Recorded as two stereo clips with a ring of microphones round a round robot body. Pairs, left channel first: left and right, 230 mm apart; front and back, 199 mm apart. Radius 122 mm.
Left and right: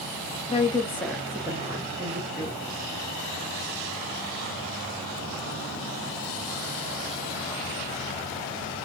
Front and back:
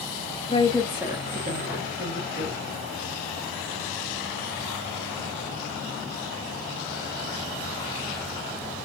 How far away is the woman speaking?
About 0.7 m.